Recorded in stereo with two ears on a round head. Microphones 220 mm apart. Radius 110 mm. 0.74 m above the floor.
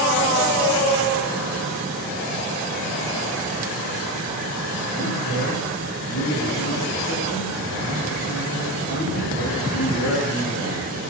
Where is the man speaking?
65° left (ahead or behind), 10 m.